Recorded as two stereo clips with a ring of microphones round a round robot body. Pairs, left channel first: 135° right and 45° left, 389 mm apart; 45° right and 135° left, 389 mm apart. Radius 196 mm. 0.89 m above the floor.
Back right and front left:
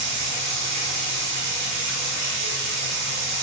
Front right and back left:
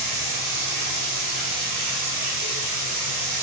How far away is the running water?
About 6 m.